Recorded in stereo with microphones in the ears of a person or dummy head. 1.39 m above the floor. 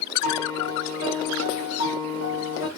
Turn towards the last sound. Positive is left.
turn(degrees=85)